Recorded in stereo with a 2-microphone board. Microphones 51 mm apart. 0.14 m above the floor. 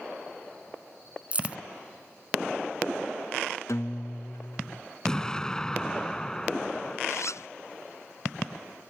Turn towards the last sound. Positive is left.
turn(degrees=70)  # may be behind; listen again after turning